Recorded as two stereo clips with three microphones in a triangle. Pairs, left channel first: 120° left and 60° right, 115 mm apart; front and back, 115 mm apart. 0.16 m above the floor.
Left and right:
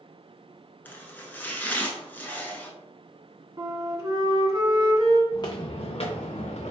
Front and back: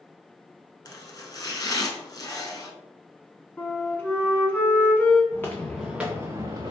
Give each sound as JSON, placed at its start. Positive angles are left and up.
{"t": 0.8, "sound": "chopping", "azimuth_deg": 50, "distance_m": 0.6}
{"t": 3.6, "sound": "a flute", "azimuth_deg": -65, "distance_m": 0.7}
{"t": 5.3, "sound": "footsteps", "azimuth_deg": 70, "distance_m": 0.7}